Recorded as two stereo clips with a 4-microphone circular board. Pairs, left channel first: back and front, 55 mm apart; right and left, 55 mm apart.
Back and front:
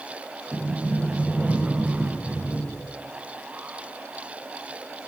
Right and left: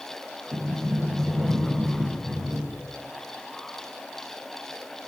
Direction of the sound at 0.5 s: 85° left.